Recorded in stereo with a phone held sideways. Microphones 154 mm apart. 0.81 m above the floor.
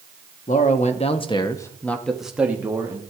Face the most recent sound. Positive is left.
turn(degrees=-20)  # may be behind; listen again after turning